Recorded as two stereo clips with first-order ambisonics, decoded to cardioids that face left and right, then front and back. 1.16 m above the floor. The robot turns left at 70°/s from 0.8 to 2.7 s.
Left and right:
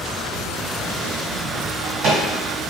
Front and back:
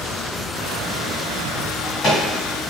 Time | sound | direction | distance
1.7 | a drawer | 25° right | 1.4 m